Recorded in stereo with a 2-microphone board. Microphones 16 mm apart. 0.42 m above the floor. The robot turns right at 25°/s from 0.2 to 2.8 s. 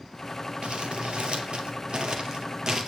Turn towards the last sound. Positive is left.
turn(degrees=-45)  # may be behind; listen again after turning